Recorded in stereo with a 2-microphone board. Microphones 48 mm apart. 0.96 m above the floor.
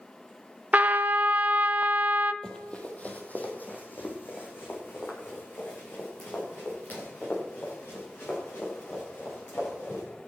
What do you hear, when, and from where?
0.7 s a trumpet: 35° right (ahead or behind), 0.6 m
2.4 s running footsteps: 15° left (ahead or behind), 1.7 m; by 10.0 s 60° left (ahead or behind), 10 m